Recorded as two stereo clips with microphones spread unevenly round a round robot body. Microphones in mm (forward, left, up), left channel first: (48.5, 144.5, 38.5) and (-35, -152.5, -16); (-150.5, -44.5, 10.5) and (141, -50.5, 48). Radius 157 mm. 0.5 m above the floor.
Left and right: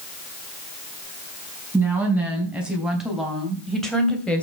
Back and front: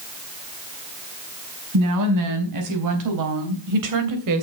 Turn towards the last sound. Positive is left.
turn(degrees=-15)